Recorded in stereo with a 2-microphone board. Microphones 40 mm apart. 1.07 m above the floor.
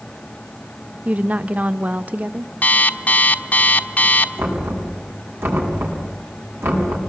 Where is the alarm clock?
40° left (ahead or behind), 1.3 m.